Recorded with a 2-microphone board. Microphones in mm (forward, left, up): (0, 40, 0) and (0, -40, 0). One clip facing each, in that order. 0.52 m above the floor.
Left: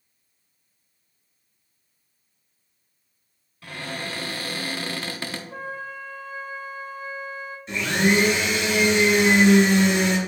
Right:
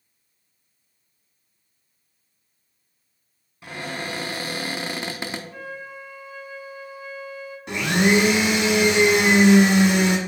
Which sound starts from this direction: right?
A blender, at 7.7 s.